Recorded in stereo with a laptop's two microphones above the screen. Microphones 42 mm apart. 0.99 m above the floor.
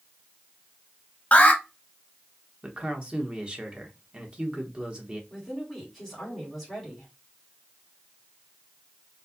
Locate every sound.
1.3 s an alarm: 35° left (ahead or behind), 0.9 m
2.6 s a man speaking: 25° right (ahead or behind), 1.1 m
5.3 s a woman speaking: 5° left (ahead or behind), 2.5 m